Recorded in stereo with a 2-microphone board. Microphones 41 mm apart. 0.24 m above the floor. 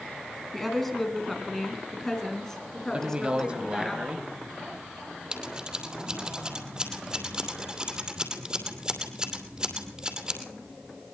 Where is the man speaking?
25° right (ahead or behind), 1.0 m.